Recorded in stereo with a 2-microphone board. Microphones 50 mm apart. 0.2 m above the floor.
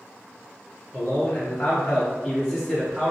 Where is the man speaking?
35° left (ahead or behind), 2.0 m; by 3.1 s 5° right (ahead or behind), 1.7 m.